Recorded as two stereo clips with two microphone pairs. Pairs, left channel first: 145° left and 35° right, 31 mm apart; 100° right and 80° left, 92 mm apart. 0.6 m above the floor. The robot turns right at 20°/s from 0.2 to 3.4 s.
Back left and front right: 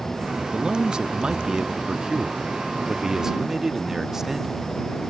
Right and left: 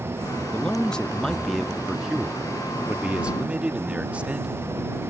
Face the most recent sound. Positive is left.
turn(degrees=15)